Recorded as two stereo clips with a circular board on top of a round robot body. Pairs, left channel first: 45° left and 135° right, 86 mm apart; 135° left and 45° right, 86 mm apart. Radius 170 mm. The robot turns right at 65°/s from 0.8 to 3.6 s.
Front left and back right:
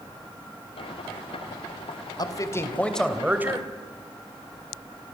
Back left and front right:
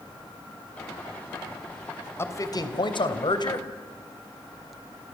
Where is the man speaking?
75° left, 3 m; by 3.7 s 170° left, 3 m.